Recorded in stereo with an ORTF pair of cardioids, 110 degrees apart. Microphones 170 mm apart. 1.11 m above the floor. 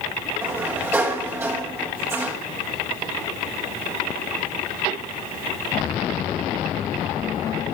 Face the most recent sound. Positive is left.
turn(degrees=-15)